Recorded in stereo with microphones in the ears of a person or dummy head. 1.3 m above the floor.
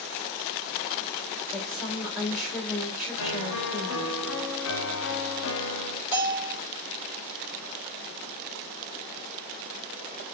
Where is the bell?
10° right (ahead or behind), 2.5 m.